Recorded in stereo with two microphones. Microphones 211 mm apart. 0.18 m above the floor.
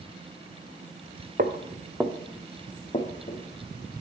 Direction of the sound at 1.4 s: 45° right (ahead or behind).